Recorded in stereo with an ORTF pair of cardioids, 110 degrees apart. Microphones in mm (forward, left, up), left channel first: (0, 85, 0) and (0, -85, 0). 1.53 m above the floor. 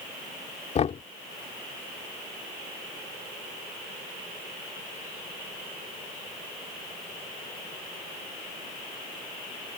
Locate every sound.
0.8 s knocking: 40° left